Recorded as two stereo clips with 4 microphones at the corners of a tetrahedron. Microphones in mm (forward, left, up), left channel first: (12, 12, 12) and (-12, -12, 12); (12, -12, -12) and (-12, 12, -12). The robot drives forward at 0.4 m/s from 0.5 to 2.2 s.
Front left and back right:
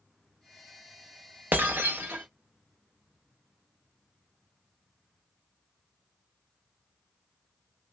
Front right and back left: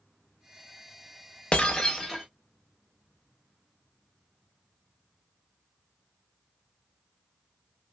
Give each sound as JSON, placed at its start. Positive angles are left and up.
{"t": 1.5, "sound": "breaking glass", "azimuth_deg": -105, "distance_m": 0.5}